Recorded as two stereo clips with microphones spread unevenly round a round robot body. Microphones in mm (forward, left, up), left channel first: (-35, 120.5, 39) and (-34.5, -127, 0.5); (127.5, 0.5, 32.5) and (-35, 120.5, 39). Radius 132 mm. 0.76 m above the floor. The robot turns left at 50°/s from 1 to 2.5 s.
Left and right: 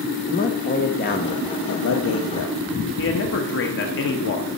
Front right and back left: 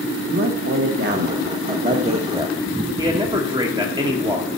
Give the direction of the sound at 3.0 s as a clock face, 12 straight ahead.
9 o'clock.